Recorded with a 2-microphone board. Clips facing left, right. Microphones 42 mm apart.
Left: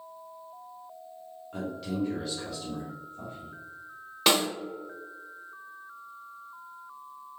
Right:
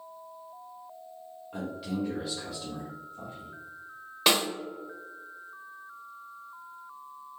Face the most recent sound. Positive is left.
turn(degrees=0)  # may be behind; listen again after turning